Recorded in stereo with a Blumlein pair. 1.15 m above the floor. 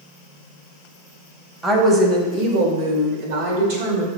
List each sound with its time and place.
1.6 s a woman speaking: 10° right, 0.9 m; by 4.1 s 55° right, 2 m